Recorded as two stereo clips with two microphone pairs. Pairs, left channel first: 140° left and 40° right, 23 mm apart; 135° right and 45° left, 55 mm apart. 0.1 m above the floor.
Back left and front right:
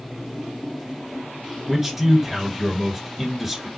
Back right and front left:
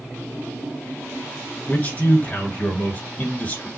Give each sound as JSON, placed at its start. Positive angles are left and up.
{"t": 1.7, "sound": "a man speaking", "azimuth_deg": -105, "distance_m": 1.6}